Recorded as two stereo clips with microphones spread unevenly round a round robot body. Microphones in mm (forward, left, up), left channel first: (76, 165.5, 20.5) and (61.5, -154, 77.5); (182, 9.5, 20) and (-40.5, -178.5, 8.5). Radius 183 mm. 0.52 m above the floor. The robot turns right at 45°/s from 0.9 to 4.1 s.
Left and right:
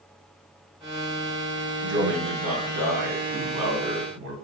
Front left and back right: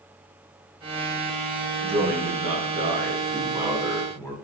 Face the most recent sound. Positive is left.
turn(degrees=-40)